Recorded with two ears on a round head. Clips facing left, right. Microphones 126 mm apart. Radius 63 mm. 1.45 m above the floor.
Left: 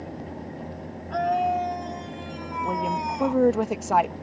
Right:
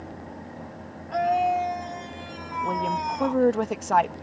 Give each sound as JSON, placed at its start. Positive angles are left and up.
{"t": 1.1, "sound": "a scream", "side_deg": -5}
{"t": 2.6, "sound": "a woman speaking", "side_deg": 5}